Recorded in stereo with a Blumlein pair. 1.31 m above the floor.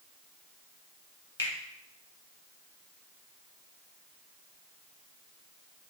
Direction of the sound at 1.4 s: 70° left.